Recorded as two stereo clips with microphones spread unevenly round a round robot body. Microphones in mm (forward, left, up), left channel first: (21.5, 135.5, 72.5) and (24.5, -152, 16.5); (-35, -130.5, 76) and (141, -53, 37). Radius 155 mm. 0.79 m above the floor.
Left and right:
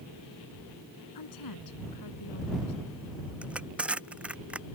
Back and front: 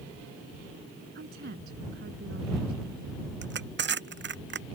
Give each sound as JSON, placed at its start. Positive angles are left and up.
{"t": 1.1, "sound": "a woman speaking", "azimuth_deg": 75}
{"t": 3.4, "sound": "crushing", "azimuth_deg": -5}